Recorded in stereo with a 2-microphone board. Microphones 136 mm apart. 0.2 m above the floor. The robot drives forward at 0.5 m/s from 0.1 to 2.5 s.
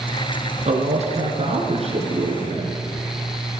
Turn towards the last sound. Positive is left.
turn(degrees=-50)  # may be behind; listen again after turning